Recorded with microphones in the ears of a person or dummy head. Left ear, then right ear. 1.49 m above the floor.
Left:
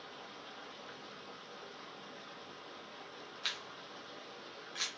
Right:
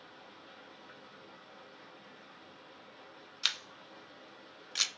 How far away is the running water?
About 1.0 m.